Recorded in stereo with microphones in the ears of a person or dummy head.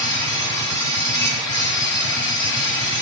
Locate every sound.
0.0 s a machine running: 15° left (ahead or behind), 2.0 m